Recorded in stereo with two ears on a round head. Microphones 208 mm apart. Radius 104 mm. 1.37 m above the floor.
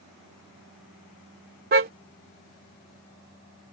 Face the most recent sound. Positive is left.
turn(degrees=-40)  # may be behind; listen again after turning